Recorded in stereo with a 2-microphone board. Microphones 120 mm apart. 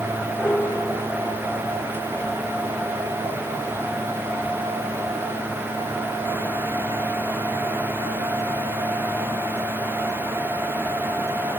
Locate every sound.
0.4 s a piano: 15° left (ahead or behind)